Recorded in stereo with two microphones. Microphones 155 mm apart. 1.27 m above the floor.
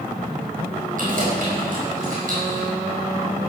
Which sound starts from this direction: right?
Keys jangling, at 1.0 s.